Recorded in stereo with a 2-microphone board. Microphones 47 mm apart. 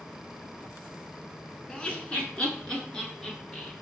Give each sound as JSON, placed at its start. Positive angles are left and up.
{"t": 1.7, "sound": "laughter", "side_deg": 20, "distance_m": 1.2}